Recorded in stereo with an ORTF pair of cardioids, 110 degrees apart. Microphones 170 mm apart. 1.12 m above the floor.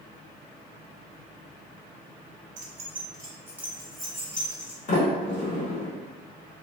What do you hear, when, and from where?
2.6 s keys jangling: 50° right, 0.5 m; by 4.8 s 10° left, 1.3 m
4.9 s a sliding door: 50° left, 1.0 m